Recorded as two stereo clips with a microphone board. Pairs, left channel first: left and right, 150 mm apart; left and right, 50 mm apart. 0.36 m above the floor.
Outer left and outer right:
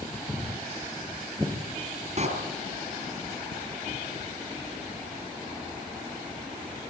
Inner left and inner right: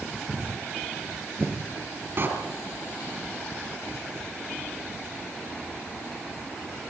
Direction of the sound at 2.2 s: 45° right (ahead or behind).